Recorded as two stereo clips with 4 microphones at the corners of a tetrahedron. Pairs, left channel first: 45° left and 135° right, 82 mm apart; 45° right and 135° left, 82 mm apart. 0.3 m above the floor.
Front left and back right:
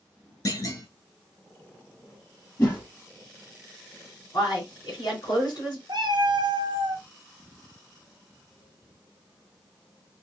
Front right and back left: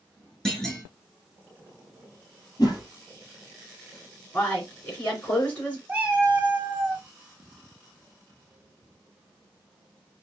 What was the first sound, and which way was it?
A clunk, 35° left.